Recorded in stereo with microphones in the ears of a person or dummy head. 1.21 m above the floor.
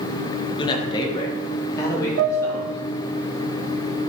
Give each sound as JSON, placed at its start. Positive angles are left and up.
{"t": 0.6, "sound": "a man speaking", "side_deg": 30, "distance_m": 1.4}
{"t": 2.2, "sound": "a piano", "side_deg": -55, "distance_m": 1.1}